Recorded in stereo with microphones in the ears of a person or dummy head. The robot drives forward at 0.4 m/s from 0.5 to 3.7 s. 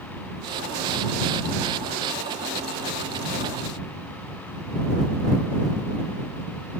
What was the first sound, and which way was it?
Only background noise.